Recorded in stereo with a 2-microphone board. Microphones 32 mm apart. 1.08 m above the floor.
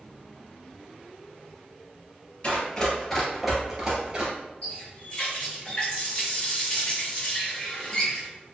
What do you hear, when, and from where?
2.4 s running footsteps: 30° left (ahead or behind), 1.3 m; by 4.3 s 30° right (ahead or behind), 1.2 m
4.6 s a running tap: 35° left (ahead or behind), 1.5 m